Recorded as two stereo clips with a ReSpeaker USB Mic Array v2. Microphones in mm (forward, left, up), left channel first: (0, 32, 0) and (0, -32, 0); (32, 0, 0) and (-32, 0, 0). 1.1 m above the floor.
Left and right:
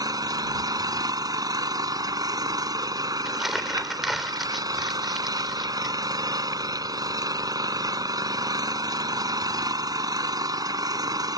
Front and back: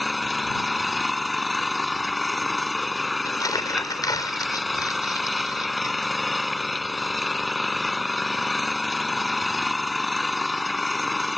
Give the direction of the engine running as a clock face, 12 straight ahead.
3 o'clock.